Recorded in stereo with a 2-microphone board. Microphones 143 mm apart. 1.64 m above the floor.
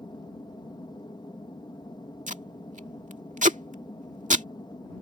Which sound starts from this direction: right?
Tape being pulled, at 2.3 s.